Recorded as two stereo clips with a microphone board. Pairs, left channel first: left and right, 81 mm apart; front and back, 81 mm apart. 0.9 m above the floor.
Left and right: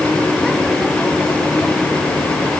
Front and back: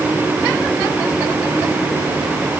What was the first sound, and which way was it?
Only background noise.